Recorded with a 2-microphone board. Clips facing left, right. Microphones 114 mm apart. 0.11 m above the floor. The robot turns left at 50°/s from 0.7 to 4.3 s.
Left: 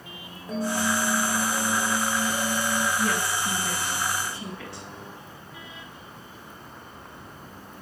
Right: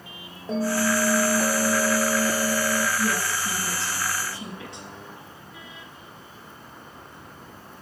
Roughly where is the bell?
Ahead right.